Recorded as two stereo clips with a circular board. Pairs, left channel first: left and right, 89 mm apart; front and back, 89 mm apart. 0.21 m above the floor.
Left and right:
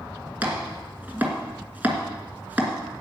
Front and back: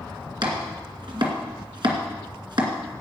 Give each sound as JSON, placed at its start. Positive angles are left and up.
{"t": 0.4, "sound": "chopping", "azimuth_deg": -160, "distance_m": 2.5}